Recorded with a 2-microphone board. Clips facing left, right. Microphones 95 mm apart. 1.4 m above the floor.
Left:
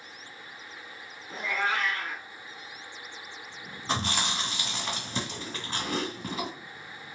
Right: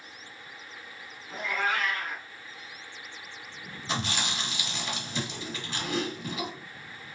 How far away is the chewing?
About 1.9 m.